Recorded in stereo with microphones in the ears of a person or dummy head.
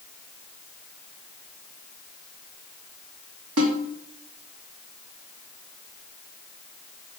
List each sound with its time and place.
3.6 s a snare drum: 80° right, 2.0 m